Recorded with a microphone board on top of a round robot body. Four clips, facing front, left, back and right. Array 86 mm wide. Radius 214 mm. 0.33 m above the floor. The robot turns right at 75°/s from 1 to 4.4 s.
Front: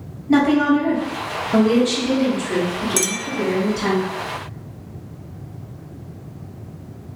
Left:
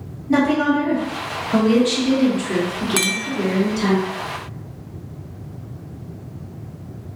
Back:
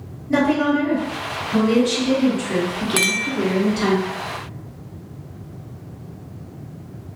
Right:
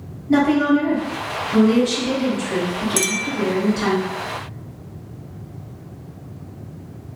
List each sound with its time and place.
0.3 s a woman speaking: straight ahead, 1.4 m; by 4.0 s 140° right, 1.4 m
3.0 s a clink: 140° left, 0.5 m; by 3.3 s 165° left, 0.5 m